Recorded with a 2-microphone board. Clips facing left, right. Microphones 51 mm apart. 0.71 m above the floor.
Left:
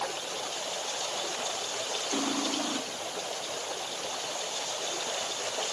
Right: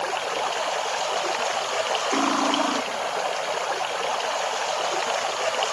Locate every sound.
0.0 s running water: 65° right (ahead or behind)
2.1 s cutlery clinking: 75° right (ahead or behind)